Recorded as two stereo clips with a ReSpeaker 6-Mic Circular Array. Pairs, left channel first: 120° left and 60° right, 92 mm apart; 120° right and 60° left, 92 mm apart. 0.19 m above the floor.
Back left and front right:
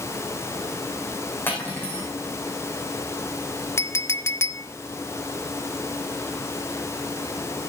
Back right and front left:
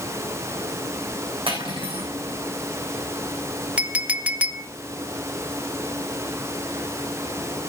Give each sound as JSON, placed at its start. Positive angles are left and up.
{"t": 1.5, "sound": "cutlery clinking", "azimuth_deg": 55, "distance_m": 6.0}
{"t": 3.8, "sound": "a clink", "azimuth_deg": 120, "distance_m": 0.9}